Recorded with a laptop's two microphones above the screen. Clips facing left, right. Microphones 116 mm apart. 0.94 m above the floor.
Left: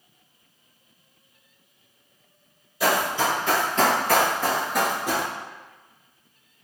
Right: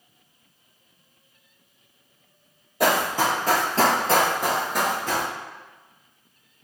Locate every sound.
2.8 s running footsteps: 55° right (ahead or behind), 1.6 m; by 5.3 s 20° left (ahead or behind), 0.9 m